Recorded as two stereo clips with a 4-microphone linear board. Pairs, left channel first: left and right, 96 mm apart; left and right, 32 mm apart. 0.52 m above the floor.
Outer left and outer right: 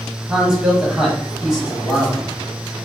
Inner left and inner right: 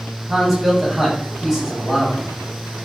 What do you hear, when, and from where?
0.3 s a man speaking: 5° right (ahead or behind), 1.0 m